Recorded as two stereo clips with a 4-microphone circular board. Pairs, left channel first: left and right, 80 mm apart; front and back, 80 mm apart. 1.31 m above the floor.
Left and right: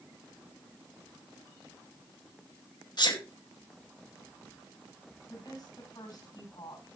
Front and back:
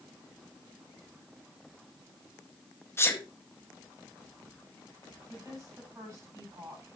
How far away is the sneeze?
About 1.9 m.